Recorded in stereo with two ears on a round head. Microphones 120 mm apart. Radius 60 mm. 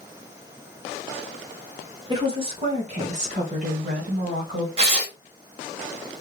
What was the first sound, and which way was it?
A woman speaking, 30° right (ahead or behind).